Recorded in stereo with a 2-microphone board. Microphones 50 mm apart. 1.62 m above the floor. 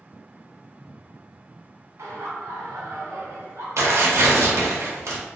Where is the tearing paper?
90° right, 0.8 m.